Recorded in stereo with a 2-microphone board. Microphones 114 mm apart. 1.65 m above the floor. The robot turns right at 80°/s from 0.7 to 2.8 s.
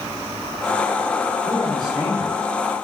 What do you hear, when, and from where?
1.4 s a man speaking: 150° left, 3 m; by 2.4 s 135° right, 3 m